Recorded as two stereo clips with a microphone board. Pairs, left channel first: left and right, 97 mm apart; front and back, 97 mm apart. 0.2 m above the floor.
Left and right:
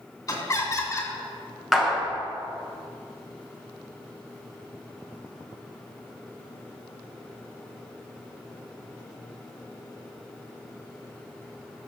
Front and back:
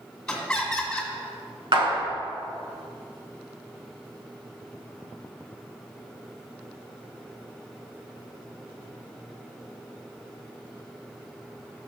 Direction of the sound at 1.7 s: Straight behind.